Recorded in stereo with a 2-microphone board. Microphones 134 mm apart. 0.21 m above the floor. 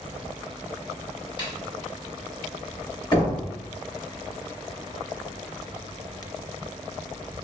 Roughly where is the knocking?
Left.